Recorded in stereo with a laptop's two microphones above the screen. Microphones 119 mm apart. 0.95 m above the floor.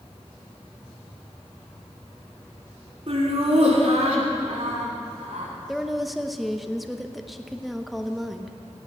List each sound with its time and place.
3.1 s laughter: 55° right (ahead or behind), 3 m; by 5.5 s 75° right (ahead or behind), 4 m
5.7 s a woman speaking: centre (ahead or behind), 0.8 m